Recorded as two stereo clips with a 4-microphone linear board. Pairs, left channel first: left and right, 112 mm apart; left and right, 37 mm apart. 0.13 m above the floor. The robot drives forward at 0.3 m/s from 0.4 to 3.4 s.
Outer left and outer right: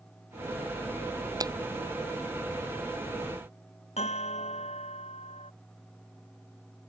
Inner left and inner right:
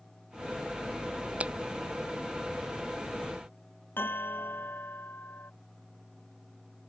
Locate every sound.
1.4 s a finger snap: 35° right (ahead or behind)
4.0 s a bell: 70° left (ahead or behind)